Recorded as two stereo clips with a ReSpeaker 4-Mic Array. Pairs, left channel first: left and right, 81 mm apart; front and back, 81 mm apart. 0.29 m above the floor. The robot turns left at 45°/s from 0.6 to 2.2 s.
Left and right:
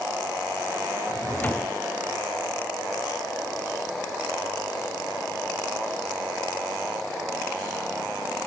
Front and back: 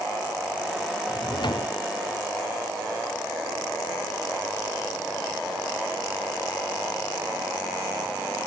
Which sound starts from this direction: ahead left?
A drawer, at 1.1 s.